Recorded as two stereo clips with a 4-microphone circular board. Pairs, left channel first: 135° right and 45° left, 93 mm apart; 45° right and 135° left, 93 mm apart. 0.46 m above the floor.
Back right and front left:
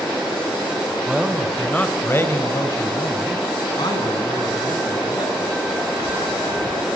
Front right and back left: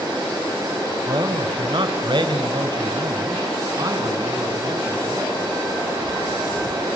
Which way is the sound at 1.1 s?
115° left.